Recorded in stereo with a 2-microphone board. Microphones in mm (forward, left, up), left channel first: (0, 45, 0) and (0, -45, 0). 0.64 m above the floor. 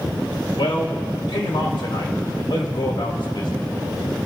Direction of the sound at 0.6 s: 75° left (ahead or behind).